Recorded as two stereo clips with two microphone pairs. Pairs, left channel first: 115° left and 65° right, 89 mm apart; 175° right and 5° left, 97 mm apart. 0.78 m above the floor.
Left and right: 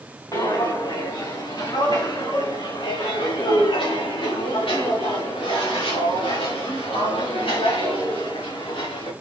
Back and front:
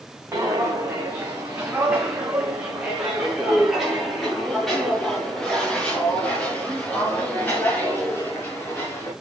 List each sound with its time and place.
0.3 s footsteps: 70° left, 4 m; by 9.1 s 120° left, 6 m